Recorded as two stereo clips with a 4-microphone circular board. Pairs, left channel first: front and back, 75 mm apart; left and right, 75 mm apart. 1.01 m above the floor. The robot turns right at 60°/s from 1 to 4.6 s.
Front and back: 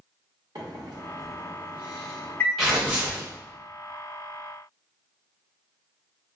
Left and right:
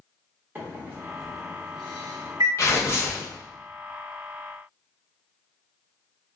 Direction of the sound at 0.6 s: 155° right.